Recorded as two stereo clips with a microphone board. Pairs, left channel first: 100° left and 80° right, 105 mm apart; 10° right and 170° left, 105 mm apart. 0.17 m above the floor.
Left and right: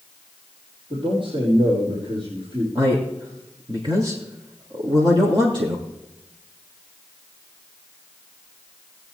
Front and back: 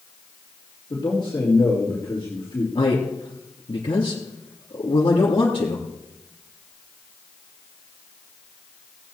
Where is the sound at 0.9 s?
55° right, 5 m.